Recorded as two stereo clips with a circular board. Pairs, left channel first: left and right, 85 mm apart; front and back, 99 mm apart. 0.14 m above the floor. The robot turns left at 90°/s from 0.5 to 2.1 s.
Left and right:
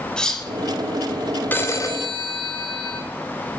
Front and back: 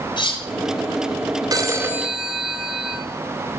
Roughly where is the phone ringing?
Behind left.